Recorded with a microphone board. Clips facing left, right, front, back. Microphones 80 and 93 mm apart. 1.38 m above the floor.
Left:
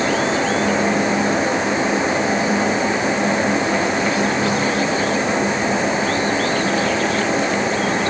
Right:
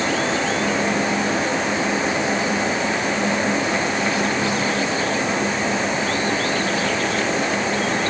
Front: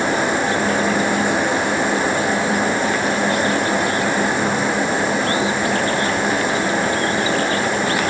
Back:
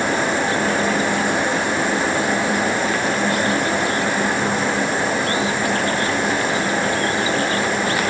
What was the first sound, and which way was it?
Only background noise.